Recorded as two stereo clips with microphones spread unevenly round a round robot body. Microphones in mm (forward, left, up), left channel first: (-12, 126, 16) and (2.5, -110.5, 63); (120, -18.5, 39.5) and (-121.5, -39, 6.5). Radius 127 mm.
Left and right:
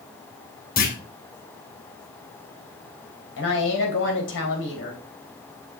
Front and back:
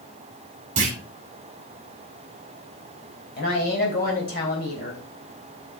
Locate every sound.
0.8 s a clunk: 130° left, 2.5 m
3.4 s a woman speaking: 60° left, 3.5 m